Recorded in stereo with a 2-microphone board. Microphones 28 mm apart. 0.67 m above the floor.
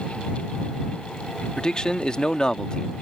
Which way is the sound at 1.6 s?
30° left (ahead or behind).